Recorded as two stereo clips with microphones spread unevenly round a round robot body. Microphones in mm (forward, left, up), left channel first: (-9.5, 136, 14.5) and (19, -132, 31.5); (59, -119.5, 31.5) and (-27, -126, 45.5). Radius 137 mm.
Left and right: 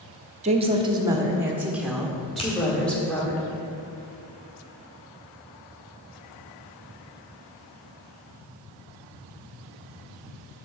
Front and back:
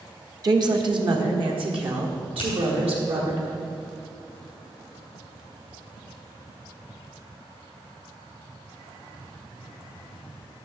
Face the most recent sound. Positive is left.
turn(degrees=25)